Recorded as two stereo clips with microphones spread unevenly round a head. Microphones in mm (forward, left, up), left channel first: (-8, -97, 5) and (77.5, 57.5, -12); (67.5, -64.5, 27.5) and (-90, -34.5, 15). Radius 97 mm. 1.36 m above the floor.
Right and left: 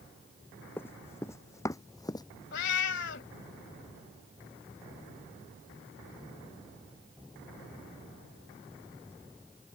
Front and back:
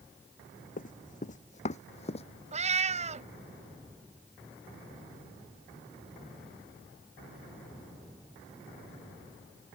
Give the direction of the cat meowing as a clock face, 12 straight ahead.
5 o'clock.